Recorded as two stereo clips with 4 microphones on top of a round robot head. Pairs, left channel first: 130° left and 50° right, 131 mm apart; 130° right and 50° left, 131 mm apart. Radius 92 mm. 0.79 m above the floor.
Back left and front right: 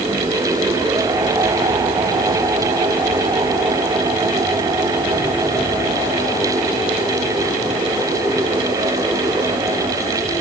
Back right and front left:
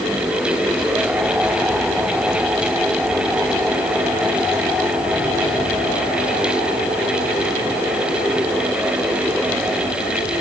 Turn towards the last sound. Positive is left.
No sound to turn to.